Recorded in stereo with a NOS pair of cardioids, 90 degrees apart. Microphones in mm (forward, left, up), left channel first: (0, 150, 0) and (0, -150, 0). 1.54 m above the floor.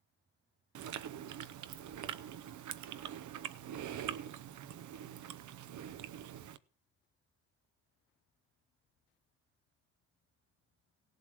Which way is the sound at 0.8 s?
65° right.